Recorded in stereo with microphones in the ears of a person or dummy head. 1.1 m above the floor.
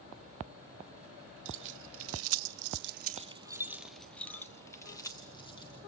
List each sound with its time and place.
1.4 s keys jangling: 65° right (ahead or behind), 1.3 m; by 5.8 s 25° left (ahead or behind), 2 m